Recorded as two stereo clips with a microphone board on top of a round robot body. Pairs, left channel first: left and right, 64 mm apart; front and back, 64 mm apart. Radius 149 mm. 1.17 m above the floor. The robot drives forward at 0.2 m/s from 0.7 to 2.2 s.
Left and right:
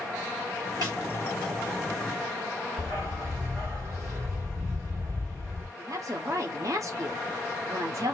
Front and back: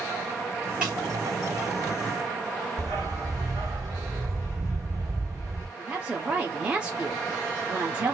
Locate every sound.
0.8 s a snare drum: 100° right, 1.3 m
2.8 s a dog barking: 145° right, 1.1 m
5.8 s a woman speaking: 105° right, 0.7 m